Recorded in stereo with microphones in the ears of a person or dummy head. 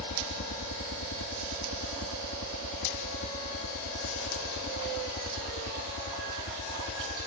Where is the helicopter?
60° left (ahead or behind); by 7.3 s 70° left (ahead or behind).